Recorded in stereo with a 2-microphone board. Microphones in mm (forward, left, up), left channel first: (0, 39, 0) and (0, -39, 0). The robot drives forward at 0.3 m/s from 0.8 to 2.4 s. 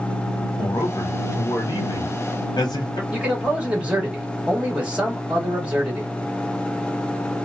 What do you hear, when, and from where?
0.6 s a man speaking: 65° left (ahead or behind), 1.1 m
3.1 s a man speaking: 15° right (ahead or behind), 1.3 m